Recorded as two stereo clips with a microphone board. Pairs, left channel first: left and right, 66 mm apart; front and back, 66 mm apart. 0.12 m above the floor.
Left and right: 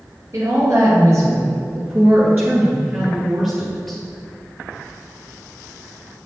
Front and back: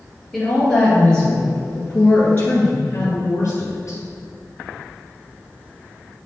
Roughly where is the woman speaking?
Right.